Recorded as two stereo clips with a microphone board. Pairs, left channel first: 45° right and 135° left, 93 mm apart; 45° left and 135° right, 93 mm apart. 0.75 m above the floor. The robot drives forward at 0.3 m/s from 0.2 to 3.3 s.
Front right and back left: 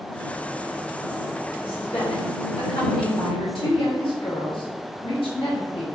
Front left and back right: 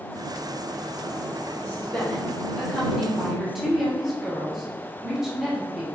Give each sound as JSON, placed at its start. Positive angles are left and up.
{"t": 1.6, "sound": "a woman speaking", "azimuth_deg": -30, "distance_m": 1.3}